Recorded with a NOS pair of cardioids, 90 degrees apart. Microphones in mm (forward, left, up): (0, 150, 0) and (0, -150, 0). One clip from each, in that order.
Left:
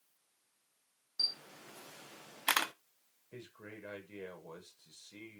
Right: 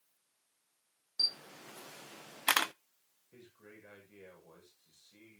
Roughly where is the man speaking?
Ahead left.